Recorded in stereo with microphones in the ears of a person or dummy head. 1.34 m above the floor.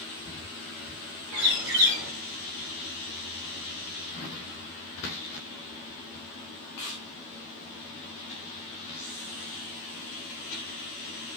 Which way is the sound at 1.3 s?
60° right (ahead or behind).